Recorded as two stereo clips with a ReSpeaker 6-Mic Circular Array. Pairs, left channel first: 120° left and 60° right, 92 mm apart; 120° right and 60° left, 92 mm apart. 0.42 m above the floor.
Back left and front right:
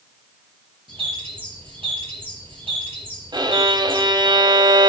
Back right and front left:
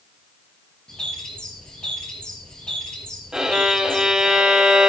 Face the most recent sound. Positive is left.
turn(degrees=-25)